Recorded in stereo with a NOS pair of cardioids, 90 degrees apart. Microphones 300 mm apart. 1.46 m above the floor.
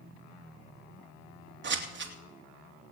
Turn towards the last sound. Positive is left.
turn(degrees=-40)